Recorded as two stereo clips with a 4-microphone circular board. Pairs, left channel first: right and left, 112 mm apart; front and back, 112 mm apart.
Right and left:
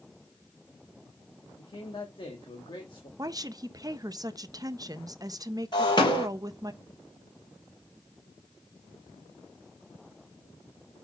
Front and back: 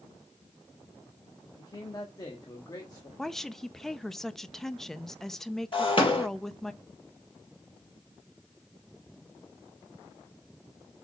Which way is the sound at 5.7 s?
40° right.